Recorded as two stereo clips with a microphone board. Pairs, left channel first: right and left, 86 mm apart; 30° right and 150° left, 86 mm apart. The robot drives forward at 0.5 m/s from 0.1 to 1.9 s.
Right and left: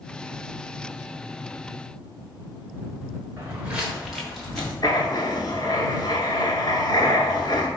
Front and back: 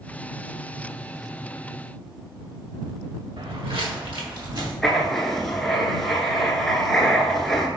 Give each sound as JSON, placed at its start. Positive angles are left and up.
{"t": 3.4, "sound": "footsteps", "azimuth_deg": 150, "distance_m": 0.8}
{"t": 4.8, "sound": "writing", "azimuth_deg": -115, "distance_m": 0.7}